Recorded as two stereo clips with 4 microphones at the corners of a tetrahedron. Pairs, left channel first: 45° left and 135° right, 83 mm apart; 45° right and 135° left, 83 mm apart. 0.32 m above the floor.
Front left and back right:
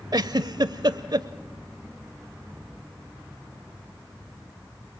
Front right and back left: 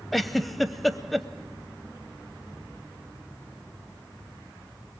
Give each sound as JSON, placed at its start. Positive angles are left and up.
{"t": 0.1, "sound": "a giggle", "azimuth_deg": -135, "distance_m": 0.6}